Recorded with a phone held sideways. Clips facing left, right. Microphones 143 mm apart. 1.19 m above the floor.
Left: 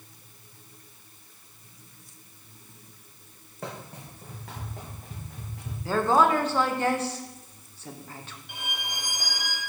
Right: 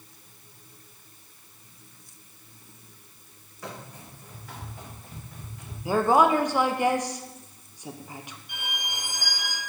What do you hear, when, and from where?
3.6 s running footsteps: 55° left (ahead or behind), 3 m; by 5.8 s 70° left (ahead or behind), 3.5 m
5.8 s a woman speaking: 15° right (ahead or behind), 0.5 m
8.5 s a violin: 55° left (ahead or behind), 2.0 m